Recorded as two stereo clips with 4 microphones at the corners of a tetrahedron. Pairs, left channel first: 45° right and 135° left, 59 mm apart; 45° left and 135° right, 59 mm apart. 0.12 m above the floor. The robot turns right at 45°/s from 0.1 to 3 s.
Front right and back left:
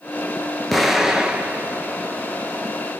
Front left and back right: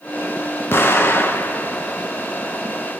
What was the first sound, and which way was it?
An explosion, 40° left.